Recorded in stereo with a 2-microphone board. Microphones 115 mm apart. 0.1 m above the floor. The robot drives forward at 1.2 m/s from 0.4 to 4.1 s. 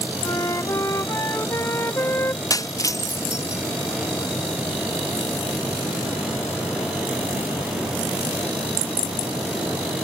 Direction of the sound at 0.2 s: 30° left (ahead or behind).